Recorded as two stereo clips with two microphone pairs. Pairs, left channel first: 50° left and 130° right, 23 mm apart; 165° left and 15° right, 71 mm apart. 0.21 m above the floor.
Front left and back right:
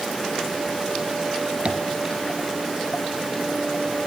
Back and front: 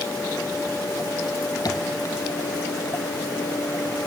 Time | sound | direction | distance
1.6 | tapping | 170° right | 1.6 m